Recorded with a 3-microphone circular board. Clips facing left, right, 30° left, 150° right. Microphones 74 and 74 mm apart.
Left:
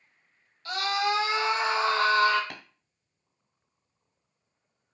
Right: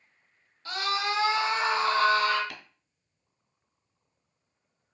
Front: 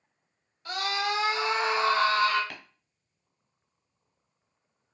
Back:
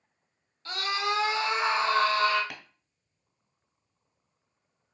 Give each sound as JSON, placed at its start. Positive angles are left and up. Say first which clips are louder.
{"t": 0.7, "sound": "a scream", "louder": "left 2 dB, even", "azimuth_deg": -35, "distance_m": 1.9}
{"t": 2.5, "sound": "tapping", "louder": "left 1 dB, even", "azimuth_deg": 130, "distance_m": 0.8}